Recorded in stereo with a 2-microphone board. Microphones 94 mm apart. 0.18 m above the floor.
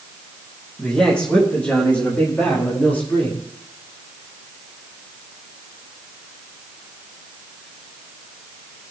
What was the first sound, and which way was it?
A man speaking, 10° left (ahead or behind).